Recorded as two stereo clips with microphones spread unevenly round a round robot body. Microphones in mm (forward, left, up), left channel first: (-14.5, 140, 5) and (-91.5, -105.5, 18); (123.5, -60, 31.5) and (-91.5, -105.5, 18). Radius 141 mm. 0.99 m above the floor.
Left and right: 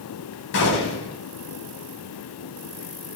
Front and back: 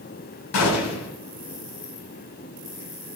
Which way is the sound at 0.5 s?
20° left.